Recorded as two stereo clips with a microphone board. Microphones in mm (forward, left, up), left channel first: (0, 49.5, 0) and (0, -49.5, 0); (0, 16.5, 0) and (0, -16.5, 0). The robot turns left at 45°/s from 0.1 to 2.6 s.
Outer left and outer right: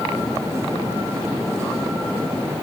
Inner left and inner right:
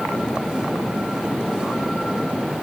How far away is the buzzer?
I don't hear a buzzer.